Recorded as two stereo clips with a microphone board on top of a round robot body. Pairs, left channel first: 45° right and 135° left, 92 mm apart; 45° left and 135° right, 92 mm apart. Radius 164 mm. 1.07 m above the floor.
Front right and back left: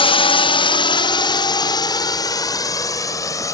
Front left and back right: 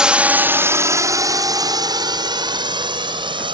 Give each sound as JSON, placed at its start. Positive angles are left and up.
{"t": 0.0, "sound": "a drone", "azimuth_deg": -55}